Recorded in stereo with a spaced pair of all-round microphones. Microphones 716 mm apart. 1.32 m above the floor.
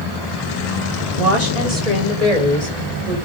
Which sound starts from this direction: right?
A woman speaking, at 1.2 s.